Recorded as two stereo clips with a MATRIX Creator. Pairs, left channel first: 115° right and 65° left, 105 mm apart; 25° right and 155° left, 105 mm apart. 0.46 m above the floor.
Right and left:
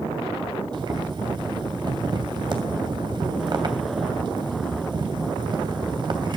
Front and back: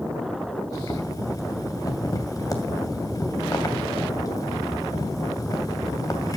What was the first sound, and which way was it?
Boiling, 30° left.